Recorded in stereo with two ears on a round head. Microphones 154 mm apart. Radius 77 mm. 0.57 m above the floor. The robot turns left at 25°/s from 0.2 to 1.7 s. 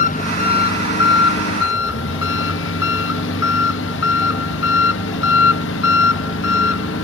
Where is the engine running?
130° left; by 7.0 s 95° left.